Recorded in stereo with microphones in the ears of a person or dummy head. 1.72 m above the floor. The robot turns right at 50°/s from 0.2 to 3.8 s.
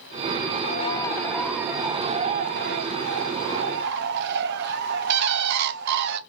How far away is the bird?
About 1.1 m.